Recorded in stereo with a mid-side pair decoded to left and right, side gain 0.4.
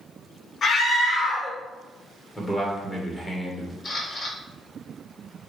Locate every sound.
0.6 s a scream: 50° left, 1.2 m
2.4 s a man speaking: 15° left, 1.8 m
3.8 s a camera shutter: 40° left, 2.5 m